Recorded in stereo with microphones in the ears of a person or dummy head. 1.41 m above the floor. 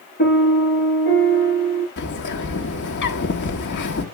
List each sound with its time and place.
0.2 s a piano: 35° left (ahead or behind), 8.5 m
2.0 s a bird: 55° left (ahead or behind), 1.3 m